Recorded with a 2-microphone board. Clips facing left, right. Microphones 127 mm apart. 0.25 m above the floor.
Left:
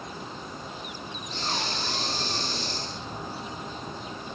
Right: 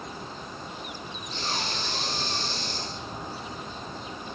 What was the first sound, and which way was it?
Breathing, 40° left (ahead or behind).